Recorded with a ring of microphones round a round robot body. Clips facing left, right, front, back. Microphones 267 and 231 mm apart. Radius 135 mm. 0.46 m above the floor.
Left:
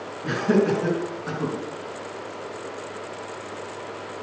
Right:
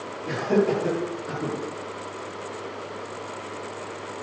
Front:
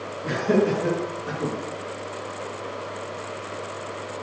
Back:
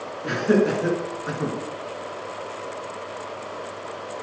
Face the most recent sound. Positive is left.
turn(degrees=100)